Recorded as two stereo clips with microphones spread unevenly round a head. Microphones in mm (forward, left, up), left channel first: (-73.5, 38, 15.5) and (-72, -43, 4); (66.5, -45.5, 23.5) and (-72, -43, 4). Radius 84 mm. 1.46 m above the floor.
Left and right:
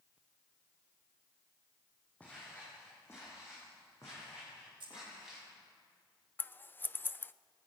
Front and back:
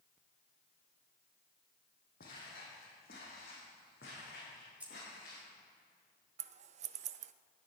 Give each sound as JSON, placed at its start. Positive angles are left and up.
{"t": 2.2, "sound": "footsteps", "azimuth_deg": 15, "distance_m": 4.5}
{"t": 4.8, "sound": "keys jangling", "azimuth_deg": -100, "distance_m": 4.0}
{"t": 6.4, "sound": "scissors", "azimuth_deg": 160, "distance_m": 0.5}